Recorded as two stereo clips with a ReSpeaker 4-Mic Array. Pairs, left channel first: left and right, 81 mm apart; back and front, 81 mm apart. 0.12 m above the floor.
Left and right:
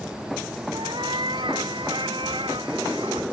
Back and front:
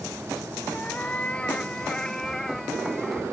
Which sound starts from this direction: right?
A cat meowing, at 0.7 s.